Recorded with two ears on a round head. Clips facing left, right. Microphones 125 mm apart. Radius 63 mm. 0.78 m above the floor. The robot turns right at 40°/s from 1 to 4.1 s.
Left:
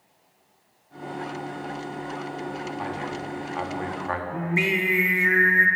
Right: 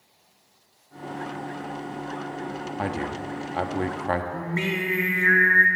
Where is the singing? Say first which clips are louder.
Left 2 dB; 15° left (ahead or behind), 1.0 m.